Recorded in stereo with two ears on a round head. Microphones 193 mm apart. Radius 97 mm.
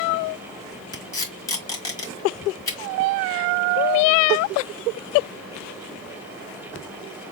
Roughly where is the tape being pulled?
Centre.